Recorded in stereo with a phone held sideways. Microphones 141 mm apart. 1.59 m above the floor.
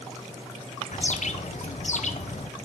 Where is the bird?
60° left (ahead or behind), 0.7 m.